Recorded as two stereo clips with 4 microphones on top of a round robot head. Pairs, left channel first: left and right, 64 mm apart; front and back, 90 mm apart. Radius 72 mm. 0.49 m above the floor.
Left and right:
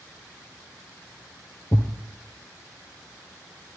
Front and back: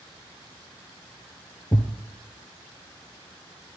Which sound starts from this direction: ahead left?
A thud, at 1.7 s.